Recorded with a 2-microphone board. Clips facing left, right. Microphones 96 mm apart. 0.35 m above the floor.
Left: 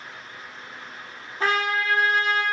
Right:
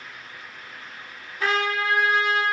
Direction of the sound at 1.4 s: 35° left (ahead or behind).